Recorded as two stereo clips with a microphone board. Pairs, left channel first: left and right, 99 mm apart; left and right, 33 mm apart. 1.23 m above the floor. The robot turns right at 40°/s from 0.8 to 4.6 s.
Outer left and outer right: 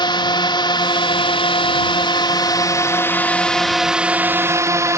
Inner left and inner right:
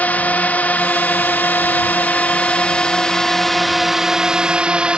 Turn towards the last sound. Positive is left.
turn(degrees=-145)